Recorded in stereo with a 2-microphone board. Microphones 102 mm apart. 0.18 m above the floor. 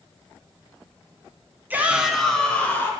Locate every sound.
1.7 s a shout: 20° right (ahead or behind), 1.5 m; by 2.9 s 20° left (ahead or behind), 2 m